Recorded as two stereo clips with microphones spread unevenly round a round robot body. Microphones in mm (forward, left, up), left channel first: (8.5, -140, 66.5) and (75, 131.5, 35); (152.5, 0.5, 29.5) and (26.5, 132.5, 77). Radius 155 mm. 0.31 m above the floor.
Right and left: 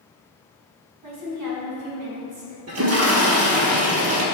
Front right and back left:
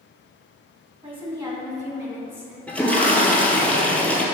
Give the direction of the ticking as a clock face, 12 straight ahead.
I don't hear ticking.